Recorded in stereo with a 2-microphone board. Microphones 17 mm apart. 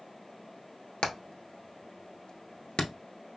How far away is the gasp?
I don't hear a gasp.